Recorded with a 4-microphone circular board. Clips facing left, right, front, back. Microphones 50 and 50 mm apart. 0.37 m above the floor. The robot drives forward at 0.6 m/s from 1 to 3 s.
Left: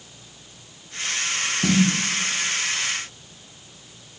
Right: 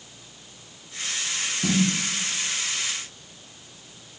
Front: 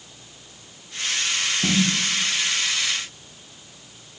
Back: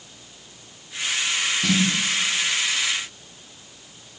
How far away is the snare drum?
About 6.5 m.